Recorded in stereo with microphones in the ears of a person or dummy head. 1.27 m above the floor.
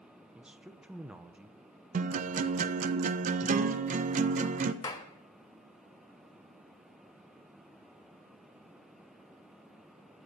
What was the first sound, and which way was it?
A man speaking, 5° right (ahead or behind).